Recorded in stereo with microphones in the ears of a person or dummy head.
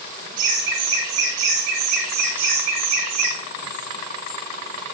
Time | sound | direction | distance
0.4 | laughter | 70° right (ahead or behind) | 3.5 m